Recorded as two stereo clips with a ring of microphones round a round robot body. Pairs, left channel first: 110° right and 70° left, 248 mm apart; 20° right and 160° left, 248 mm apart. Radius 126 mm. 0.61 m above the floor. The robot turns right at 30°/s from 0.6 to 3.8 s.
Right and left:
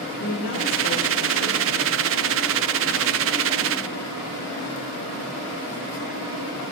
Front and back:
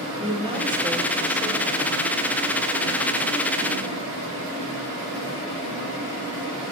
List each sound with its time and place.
0.2 s a woman speaking: 135° right, 1.7 m; by 2.1 s 90° right, 1.7 m